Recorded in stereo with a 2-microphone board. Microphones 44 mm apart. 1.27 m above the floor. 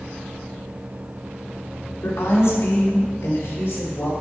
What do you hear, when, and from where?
2.0 s a woman speaking: 75° left (ahead or behind), 3 m; by 4.1 s 50° left (ahead or behind), 5 m